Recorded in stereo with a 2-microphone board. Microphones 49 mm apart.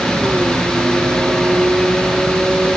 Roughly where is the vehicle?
Right.